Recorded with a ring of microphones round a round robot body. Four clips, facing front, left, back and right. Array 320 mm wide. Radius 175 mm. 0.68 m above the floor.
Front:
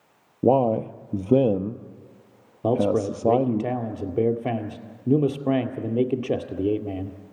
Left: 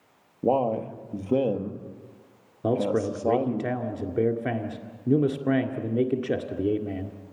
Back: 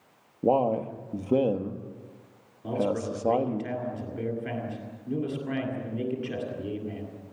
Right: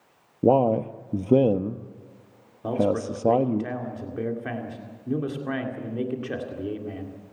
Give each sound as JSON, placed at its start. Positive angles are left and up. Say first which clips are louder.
{"t": 0.4, "sound": "a man speaking", "louder": "right 4 dB, front 4 dB", "azimuth_deg": -45, "distance_m": 1.2}
{"t": 2.6, "sound": "a man speaking", "louder": "even, front 7 dB", "azimuth_deg": 30, "distance_m": 2.0}